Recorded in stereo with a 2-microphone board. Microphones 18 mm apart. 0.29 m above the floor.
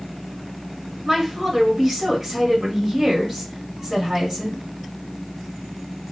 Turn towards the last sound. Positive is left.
turn(degrees=-10)  # may be behind; listen again after turning